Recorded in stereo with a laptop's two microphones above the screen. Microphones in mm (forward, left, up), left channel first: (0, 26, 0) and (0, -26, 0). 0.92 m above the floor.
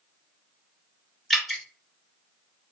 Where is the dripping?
Centre (ahead or behind), 1.3 m.